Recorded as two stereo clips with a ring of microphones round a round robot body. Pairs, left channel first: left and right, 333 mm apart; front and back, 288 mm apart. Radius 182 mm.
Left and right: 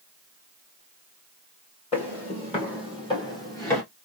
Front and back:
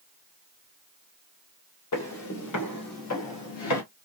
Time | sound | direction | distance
1.9 | footsteps | 20° left | 2.5 m